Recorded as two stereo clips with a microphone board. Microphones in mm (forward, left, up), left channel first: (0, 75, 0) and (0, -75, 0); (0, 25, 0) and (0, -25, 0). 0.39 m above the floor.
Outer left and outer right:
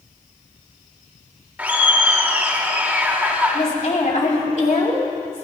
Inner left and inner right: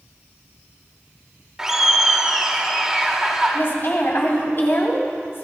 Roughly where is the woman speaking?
Left.